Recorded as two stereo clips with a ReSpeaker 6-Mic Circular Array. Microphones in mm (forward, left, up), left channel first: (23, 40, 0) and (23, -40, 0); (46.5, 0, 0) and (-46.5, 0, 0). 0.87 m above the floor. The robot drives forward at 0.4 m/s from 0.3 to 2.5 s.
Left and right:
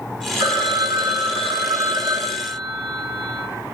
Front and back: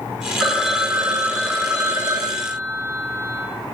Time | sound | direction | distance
0.4 | a phone ringing | 90° right | 1.2 m